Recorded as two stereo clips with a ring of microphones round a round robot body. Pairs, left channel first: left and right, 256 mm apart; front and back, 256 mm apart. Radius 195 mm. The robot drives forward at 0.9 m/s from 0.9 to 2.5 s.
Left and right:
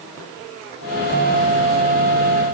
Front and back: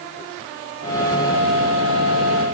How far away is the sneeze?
No sneeze in this recording.